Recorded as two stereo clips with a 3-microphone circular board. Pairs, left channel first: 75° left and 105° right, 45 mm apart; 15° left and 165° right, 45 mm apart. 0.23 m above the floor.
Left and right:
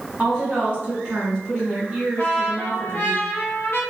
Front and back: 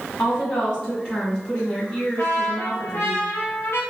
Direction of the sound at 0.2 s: 40° right.